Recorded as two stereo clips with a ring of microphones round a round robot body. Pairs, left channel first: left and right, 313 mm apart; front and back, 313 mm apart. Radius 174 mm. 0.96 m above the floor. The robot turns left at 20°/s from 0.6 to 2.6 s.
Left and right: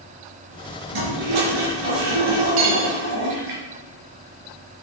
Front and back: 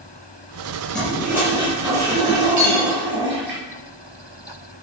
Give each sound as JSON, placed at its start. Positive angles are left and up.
{"t": 0.9, "sound": "a toilet flushing", "azimuth_deg": -85, "distance_m": 4.0}
{"t": 2.6, "sound": "cutlery clinking", "azimuth_deg": -120, "distance_m": 2.5}